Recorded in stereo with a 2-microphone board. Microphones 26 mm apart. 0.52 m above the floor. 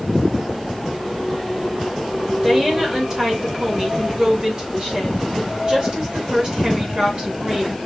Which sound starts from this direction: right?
A woman speaking, at 2.4 s.